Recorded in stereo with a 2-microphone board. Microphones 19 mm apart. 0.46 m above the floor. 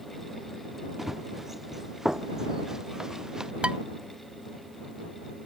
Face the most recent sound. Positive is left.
turn(degrees=-75)  # may be behind; listen again after turning